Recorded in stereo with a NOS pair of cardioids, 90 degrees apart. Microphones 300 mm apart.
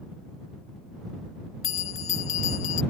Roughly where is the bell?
Ahead left.